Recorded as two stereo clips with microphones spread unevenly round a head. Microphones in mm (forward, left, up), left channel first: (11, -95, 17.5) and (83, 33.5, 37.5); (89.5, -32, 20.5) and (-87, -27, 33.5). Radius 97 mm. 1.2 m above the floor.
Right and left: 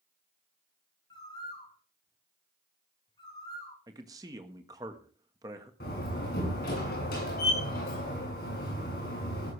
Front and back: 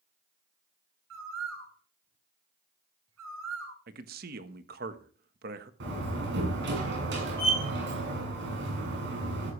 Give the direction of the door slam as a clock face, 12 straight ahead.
5 o'clock.